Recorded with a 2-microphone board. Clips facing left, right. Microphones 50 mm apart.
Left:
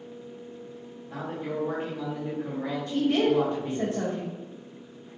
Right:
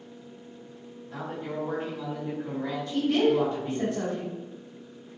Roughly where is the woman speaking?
Left.